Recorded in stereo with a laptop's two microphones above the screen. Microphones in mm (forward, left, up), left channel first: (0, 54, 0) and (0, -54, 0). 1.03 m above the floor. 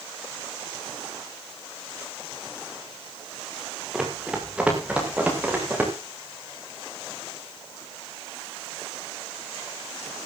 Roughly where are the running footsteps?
Centre.